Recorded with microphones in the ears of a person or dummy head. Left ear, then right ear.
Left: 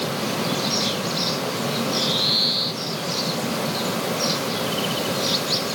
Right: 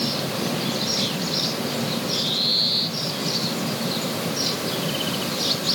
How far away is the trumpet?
No trumpet in this recording.